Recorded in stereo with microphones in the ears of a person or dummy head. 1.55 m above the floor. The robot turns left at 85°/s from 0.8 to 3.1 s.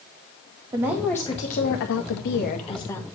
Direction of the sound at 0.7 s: 160° right.